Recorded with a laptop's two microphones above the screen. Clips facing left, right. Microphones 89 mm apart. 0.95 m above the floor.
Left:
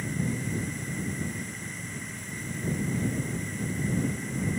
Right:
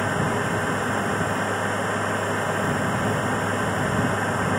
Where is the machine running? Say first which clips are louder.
Right 9 dB; 70° right (ahead or behind).